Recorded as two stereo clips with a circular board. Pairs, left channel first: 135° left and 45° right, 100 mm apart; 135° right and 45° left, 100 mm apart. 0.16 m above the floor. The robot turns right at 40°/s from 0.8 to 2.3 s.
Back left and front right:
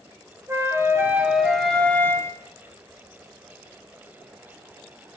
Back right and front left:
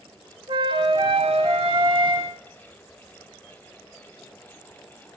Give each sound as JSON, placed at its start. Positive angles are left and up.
{"t": 0.5, "sound": "a flute", "azimuth_deg": 15, "distance_m": 0.9}